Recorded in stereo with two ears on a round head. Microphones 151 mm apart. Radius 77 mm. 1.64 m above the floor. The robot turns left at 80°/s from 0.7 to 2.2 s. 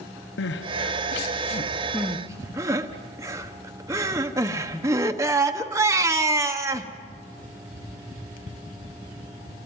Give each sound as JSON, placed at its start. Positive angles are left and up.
{"t": 0.4, "sound": "crying", "side_deg": 75, "distance_m": 1.1}